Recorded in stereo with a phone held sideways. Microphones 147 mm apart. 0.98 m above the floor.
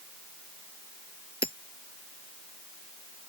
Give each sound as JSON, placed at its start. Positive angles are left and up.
{"t": 1.4, "sound": "hammering", "side_deg": 35}